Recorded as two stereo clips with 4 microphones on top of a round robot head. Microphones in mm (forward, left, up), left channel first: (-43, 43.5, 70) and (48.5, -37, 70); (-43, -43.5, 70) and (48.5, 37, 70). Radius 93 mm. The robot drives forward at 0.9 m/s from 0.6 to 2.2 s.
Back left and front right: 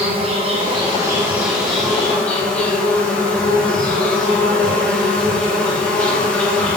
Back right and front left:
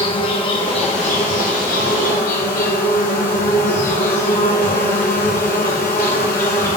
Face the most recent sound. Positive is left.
turn(degrees=-140)